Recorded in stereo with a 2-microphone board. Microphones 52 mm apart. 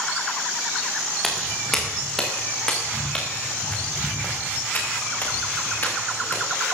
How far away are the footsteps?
About 3 m.